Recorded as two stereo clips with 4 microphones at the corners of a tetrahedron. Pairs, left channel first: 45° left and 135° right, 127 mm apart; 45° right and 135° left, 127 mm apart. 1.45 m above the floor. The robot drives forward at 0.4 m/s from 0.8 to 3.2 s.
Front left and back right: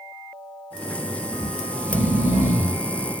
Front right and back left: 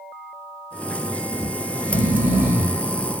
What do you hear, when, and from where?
1.3 s snoring: 65° left, 6 m; by 2.8 s 75° left, 6 m